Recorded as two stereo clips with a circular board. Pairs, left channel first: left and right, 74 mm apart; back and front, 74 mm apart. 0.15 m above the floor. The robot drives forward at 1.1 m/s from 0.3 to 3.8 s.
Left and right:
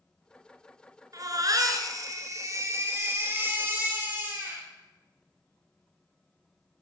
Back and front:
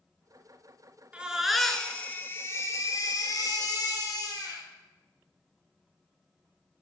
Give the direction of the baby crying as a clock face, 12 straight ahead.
2 o'clock.